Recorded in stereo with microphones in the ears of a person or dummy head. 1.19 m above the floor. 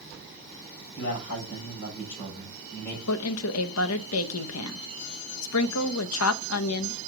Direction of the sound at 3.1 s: 85° left.